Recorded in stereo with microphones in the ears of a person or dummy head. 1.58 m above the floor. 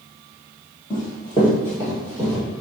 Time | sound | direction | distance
0.9 | running footsteps | 25° left (ahead or behind) | 1.8 m